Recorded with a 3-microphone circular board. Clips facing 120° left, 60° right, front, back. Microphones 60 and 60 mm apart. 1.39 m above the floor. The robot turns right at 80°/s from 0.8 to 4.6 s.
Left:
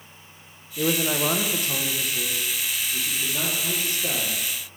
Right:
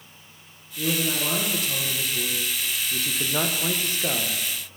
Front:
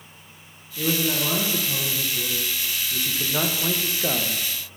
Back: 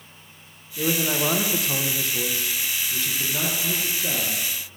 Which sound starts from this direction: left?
A man speaking, at 0.8 s.